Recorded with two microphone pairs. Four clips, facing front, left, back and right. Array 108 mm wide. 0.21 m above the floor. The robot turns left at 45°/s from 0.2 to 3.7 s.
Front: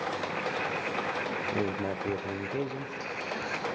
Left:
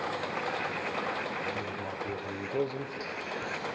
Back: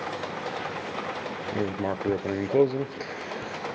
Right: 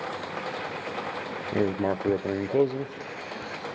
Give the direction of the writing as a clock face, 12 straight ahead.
3 o'clock.